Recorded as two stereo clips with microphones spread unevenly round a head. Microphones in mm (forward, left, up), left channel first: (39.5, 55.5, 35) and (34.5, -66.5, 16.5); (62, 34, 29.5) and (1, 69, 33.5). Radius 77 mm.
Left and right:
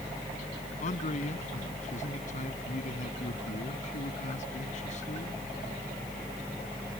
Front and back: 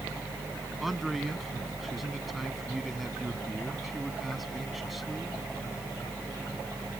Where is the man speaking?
65° left.